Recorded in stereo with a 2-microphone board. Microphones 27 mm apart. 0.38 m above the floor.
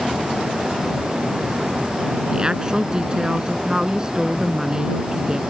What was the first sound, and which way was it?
A woman speaking, 25° right (ahead or behind).